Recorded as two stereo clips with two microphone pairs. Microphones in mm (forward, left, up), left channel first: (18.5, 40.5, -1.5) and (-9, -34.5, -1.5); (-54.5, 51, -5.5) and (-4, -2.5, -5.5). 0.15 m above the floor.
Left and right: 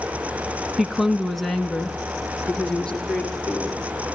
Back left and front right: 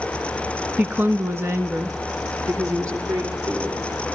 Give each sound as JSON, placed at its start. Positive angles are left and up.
{"t": 0.8, "sound": "a woman speaking", "azimuth_deg": -35, "distance_m": 1.1}